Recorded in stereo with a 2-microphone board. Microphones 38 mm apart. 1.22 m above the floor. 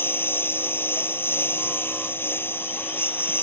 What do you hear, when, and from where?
0.0 s a lawn mower: 80° left